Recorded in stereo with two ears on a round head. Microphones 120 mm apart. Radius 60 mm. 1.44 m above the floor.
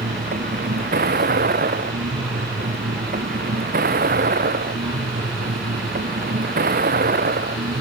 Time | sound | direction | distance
0.0 | a vehicle | 75° right (ahead or behind) | ?